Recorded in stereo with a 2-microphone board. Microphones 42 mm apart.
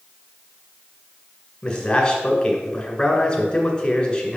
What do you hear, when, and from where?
1.6 s a man speaking: 20° left (ahead or behind), 1.8 m